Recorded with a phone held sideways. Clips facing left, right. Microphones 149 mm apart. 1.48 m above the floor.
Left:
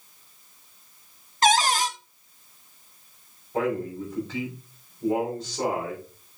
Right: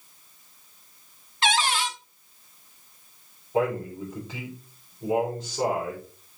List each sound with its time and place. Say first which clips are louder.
1.4 s a cupboard door: left 4 dB; 40° left (ahead or behind), 0.9 m
3.5 s a man speaking: right 1 dB; 15° right (ahead or behind), 6 m